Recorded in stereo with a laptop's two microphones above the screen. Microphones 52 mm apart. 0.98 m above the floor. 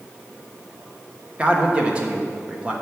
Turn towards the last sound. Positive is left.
turn(degrees=-25)  # may be behind; listen again after turning